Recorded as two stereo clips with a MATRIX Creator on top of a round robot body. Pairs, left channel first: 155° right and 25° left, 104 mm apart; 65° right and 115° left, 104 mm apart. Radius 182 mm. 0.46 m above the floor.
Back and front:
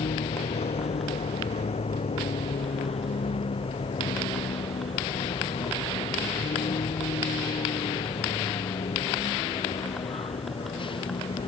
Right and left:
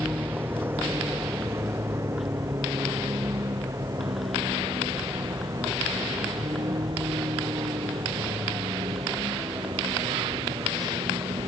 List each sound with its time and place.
0.0 s a vehicle: 175° right; by 11.5 s 165° left